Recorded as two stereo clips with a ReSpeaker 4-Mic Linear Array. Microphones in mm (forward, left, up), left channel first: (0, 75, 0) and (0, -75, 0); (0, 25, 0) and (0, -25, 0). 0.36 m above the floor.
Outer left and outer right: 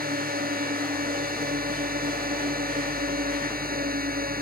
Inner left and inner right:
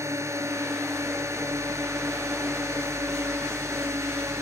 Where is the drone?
75° right (ahead or behind).